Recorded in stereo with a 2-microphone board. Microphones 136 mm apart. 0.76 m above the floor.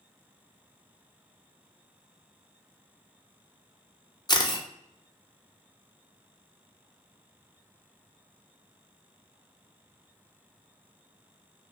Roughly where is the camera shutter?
Left.